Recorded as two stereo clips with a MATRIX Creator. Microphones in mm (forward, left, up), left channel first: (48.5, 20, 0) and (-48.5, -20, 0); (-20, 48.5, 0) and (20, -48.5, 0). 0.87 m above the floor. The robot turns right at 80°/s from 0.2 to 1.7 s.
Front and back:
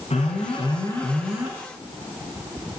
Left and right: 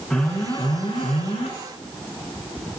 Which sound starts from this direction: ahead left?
An alarm, at 0.1 s.